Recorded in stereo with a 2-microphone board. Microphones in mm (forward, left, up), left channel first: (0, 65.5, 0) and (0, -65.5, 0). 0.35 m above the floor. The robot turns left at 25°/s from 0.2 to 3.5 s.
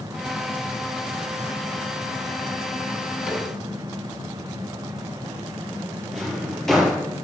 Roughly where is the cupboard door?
Centre.